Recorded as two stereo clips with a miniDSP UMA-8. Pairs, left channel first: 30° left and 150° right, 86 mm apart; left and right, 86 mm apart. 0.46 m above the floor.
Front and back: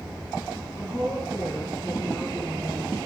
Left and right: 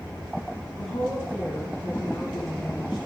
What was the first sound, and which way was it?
A woman speaking, 110° left.